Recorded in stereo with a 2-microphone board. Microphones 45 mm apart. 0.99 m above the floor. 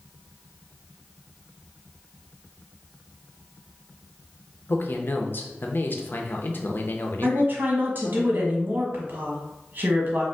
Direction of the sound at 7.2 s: 40° right (ahead or behind).